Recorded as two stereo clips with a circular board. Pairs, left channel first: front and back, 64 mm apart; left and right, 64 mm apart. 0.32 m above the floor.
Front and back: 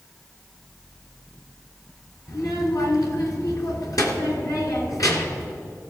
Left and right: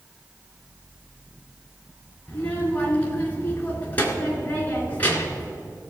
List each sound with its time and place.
2.3 s a child speaking: 25° left, 2.5 m